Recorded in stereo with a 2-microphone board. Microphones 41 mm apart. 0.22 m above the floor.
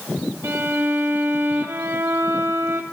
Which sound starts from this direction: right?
A violin, at 0.4 s.